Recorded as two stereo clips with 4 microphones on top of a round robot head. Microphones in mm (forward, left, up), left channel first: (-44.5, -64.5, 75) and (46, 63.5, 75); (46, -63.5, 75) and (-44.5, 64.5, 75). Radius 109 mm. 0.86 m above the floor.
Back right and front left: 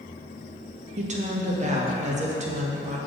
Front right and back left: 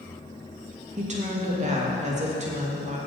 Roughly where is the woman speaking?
Left.